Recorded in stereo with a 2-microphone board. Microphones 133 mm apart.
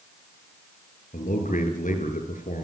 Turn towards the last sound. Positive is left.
turn(degrees=75)  # may be behind; listen again after turning